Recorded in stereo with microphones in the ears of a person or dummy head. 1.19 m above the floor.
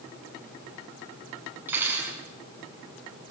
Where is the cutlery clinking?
10° right (ahead or behind), 7.5 m.